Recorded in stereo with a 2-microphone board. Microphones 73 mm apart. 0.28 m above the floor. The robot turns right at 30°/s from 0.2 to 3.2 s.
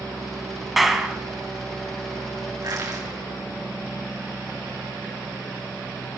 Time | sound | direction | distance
0.8 | a clap | centre (ahead or behind) | 1.5 m
2.6 | crushing | 65° right (ahead or behind) | 6 m